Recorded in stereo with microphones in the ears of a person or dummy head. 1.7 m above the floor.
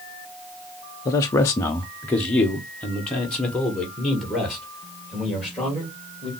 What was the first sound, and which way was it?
A man speaking, 20° left (ahead or behind).